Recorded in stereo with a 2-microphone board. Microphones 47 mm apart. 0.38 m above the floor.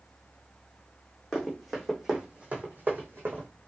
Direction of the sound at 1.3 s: 10° left (ahead or behind).